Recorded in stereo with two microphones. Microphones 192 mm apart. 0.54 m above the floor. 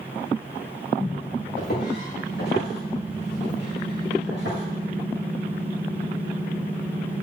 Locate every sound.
1.6 s footsteps: 50° left (ahead or behind), 5 m; by 4.6 s 65° left (ahead or behind), 5.5 m